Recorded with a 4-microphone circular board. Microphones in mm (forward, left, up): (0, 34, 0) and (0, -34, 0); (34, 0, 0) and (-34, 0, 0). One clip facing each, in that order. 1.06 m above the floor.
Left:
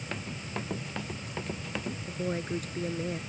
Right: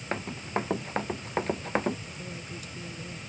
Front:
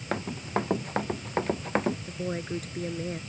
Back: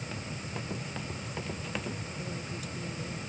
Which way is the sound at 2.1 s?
45° left.